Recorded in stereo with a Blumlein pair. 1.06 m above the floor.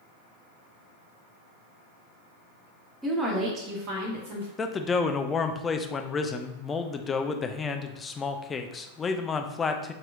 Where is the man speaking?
20° left, 0.5 m.